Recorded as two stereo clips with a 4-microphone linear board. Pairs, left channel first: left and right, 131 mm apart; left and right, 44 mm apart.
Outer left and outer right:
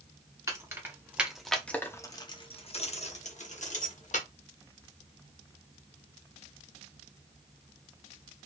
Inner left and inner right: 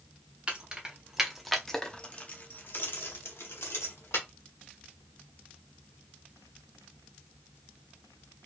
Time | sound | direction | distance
0.5 | keys jangling | 25° right (ahead or behind) | 1.0 m